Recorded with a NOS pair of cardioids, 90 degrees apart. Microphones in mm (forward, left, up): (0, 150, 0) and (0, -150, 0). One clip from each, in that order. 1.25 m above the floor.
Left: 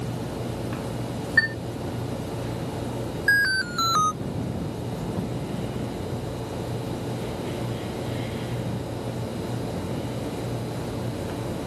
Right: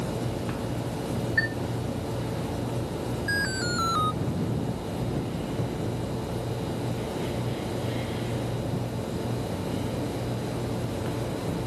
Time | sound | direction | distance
1.4 | a chime | 55° left | ?
3.3 | an alarm | 65° left | ?